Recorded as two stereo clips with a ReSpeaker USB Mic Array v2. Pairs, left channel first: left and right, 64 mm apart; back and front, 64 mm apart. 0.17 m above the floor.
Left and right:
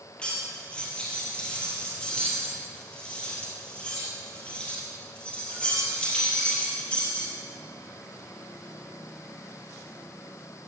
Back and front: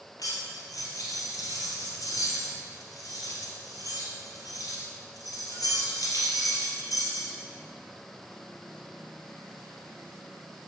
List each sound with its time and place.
0.2 s cutlery clinking: 165° left, 2 m